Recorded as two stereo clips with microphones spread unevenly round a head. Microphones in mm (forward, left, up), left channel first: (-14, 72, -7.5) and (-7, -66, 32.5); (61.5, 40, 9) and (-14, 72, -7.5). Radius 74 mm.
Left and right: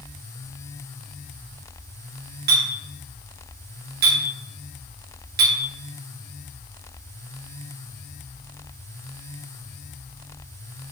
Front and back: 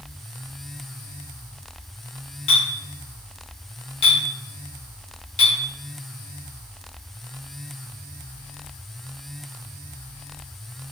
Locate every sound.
2.5 s a clink: 60° right, 0.7 m